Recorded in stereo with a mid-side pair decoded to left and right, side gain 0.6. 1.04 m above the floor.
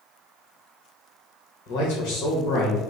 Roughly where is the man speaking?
Left.